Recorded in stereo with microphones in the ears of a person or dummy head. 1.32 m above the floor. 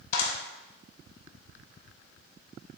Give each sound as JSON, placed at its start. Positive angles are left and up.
{"t": 0.1, "sound": "a clap", "side_deg": 50, "distance_m": 2.0}